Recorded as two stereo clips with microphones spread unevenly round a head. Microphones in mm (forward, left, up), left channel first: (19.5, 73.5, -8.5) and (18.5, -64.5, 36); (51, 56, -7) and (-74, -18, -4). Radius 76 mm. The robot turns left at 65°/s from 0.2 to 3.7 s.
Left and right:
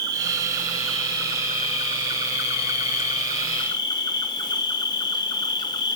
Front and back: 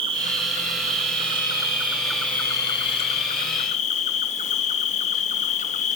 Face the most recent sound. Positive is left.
turn(degrees=20)